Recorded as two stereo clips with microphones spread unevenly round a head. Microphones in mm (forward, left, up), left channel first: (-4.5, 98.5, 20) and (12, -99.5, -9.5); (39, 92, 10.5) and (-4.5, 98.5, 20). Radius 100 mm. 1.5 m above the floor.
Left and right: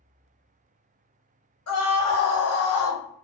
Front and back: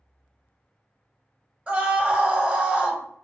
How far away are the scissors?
I don't hear scissors.